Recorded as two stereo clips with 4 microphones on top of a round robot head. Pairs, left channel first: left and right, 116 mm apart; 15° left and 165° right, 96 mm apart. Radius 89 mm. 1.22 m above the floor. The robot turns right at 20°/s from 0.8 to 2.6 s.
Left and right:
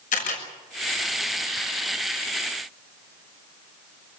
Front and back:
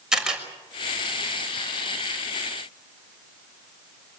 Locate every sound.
0.1 s a camera shutter: 110° left, 6 m